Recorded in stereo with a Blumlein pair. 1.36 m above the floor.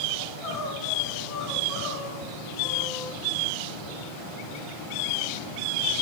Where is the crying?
30° left, 5.5 m.